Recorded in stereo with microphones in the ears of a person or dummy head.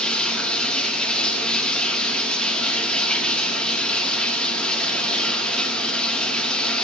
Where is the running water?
10° left (ahead or behind), 1.3 m.